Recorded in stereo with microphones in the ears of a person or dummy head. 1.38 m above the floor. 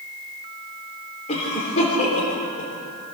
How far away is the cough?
About 4 m.